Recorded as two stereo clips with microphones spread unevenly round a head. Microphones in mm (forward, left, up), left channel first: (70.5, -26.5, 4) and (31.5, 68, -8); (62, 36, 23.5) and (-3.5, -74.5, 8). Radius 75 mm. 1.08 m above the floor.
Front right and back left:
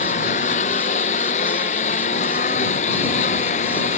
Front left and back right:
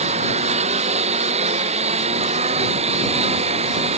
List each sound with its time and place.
0.0 s a lawn mower: 85° right; by 4.0 s 80° right